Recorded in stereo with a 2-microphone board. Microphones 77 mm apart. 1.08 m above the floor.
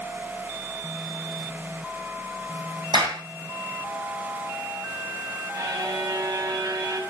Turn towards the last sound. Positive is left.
turn(degrees=-60)  # may be behind; listen again after turning